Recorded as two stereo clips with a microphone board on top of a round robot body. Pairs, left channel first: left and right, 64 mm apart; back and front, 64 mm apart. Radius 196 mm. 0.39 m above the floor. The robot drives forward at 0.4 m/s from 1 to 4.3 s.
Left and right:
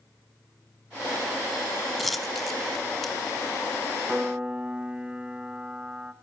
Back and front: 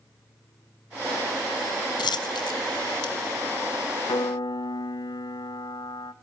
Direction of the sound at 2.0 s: Straight behind.